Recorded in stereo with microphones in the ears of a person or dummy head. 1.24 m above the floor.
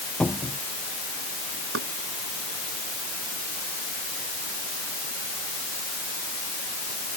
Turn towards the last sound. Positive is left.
turn(degrees=-75)  # may be behind; listen again after turning